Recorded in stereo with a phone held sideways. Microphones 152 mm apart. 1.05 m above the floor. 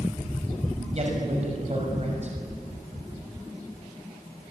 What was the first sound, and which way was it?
A man speaking, 50° right (ahead or behind).